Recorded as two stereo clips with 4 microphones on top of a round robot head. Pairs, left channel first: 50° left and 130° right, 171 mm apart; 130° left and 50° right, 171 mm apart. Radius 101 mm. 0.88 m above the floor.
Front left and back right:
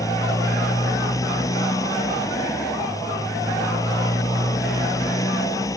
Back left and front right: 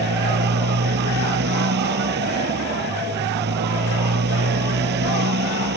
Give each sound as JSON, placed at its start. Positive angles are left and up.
{"t": 0.0, "sound": "a motorcycle", "azimuth_deg": -25}